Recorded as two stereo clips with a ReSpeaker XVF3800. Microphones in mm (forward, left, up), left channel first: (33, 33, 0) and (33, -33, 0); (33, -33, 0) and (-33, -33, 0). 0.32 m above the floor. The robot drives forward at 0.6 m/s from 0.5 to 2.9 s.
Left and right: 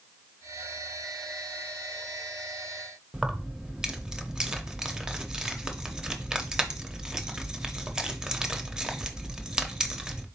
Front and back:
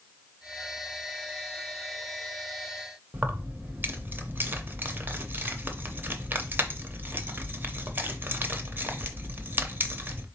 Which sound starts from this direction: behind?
Keys jangling, at 3.1 s.